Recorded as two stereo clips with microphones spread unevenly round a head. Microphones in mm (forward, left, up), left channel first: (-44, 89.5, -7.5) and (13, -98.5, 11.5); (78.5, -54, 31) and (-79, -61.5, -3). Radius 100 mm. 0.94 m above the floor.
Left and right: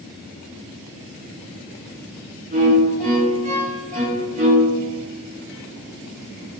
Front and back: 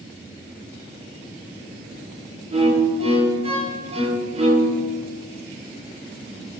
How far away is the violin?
About 2 m.